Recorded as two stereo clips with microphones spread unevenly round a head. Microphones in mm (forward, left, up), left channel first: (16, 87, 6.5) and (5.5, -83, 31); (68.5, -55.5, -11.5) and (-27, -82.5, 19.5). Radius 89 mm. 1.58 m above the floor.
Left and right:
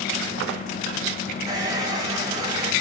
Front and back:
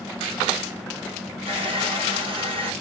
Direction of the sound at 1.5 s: 160° right.